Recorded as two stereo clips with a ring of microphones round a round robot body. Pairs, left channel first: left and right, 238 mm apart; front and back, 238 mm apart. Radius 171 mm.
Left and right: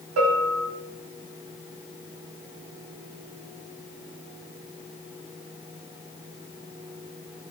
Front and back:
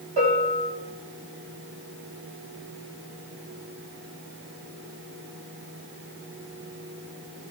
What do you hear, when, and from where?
0.2 s a bell: 115° right, 3.5 m